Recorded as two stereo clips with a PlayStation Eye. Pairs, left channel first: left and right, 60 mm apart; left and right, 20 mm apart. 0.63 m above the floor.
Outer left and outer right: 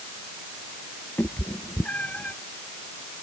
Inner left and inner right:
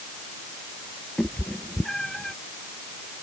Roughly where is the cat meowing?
Left.